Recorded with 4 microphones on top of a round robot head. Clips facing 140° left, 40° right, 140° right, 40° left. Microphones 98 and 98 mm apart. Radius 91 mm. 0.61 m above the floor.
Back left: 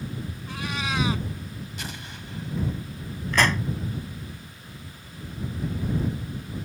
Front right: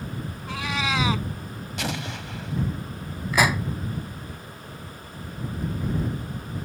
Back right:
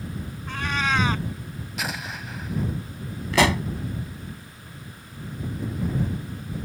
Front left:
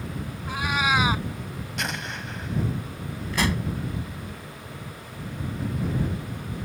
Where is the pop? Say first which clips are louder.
Front right 1 dB, back right 6 dB; 120° right.